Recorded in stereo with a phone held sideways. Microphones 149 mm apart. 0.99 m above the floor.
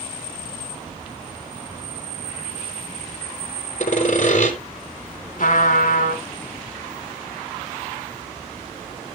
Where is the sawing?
55° left (ahead or behind), 3 m.